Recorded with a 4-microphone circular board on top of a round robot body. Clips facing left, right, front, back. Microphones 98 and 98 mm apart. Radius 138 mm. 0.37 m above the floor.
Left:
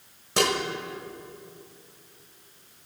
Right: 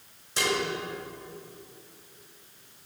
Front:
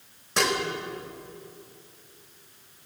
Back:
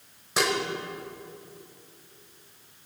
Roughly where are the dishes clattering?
Left.